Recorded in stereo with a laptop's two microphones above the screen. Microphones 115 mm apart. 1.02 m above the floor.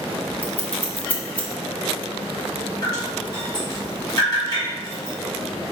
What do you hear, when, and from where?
0.4 s scissors: 15° left (ahead or behind), 0.8 m
2.8 s dripping: 35° left (ahead or behind), 1.5 m